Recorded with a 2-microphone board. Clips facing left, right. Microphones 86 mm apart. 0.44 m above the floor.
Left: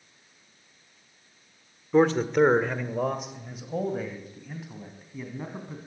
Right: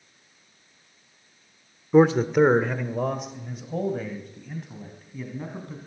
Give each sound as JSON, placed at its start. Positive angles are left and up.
{"t": 1.9, "sound": "a man speaking", "side_deg": -10, "distance_m": 0.9}